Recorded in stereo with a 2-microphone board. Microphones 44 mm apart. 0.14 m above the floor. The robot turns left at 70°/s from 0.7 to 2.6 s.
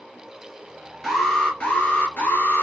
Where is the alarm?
175° right, 1.7 m; by 2.6 s 80° left, 1.7 m.